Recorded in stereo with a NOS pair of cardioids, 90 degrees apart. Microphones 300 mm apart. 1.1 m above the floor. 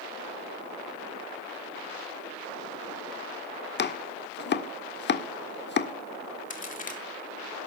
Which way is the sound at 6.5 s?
25° left.